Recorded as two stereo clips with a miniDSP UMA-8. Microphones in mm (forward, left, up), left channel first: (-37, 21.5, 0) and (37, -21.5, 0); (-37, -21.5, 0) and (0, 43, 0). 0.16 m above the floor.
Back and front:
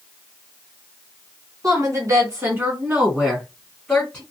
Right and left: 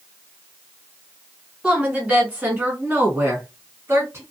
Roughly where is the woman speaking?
Ahead.